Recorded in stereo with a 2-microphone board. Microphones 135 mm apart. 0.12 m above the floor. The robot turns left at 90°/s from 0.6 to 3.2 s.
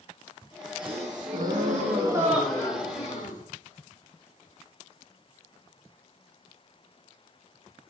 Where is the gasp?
35° right, 3.5 m; by 3.4 s 110° left, 3.5 m.